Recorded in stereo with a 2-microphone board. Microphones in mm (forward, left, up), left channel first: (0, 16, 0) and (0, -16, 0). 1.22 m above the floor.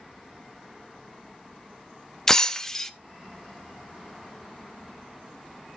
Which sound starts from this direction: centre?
Breaking glass, at 2.3 s.